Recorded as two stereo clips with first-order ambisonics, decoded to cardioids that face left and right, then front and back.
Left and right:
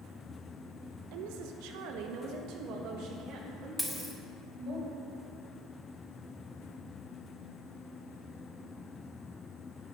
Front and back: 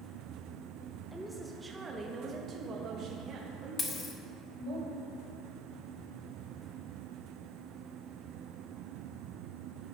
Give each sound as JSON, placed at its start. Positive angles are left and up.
{"t": 1.1, "sound": "a woman speaking", "azimuth_deg": -85, "distance_m": 1.0}
{"t": 3.8, "sound": "a dropped coin", "azimuth_deg": 15, "distance_m": 1.1}